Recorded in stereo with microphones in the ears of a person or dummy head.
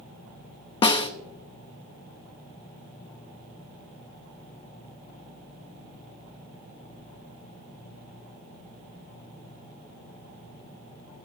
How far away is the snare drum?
About 0.8 m.